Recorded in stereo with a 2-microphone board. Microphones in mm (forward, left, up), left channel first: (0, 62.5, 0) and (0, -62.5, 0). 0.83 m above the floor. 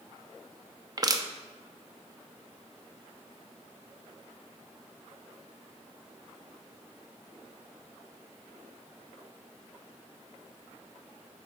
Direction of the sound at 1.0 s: 30° right (ahead or behind).